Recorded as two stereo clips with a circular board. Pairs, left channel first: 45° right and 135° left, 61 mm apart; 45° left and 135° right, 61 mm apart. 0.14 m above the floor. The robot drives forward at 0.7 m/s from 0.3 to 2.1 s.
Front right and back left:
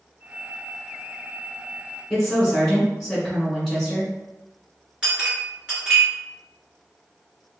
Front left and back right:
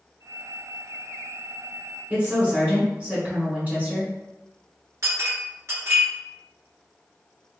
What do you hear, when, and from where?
2.1 s a woman speaking: 125° right, 1.8 m
5.0 s a clink: 155° right, 1.5 m